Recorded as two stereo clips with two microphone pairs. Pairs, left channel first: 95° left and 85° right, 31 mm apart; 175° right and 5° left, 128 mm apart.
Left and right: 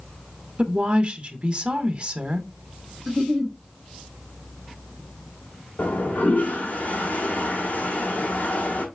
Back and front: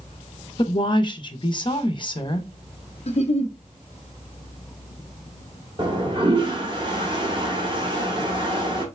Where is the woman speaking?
130° right, 0.8 m.